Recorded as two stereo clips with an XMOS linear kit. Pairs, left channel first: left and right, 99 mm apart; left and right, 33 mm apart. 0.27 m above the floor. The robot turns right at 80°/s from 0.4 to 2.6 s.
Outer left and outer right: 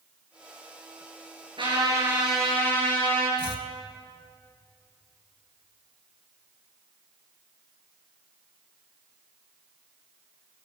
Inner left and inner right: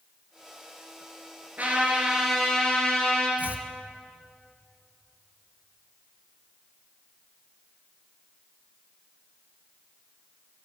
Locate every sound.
1.6 s a trumpet: 60° right, 5.5 m; by 3.3 s 20° left, 5.5 m
3.4 s chopping: 60° right (ahead or behind), 1.2 m